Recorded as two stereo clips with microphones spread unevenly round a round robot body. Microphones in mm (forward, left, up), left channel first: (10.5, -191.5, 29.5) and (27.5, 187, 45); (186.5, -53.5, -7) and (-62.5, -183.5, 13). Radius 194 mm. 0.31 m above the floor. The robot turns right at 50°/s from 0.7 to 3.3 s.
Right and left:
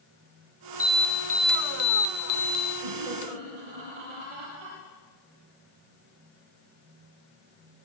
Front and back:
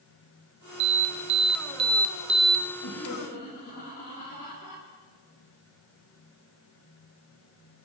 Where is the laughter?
75° left, 8 m; by 4.8 s 100° left, 8 m.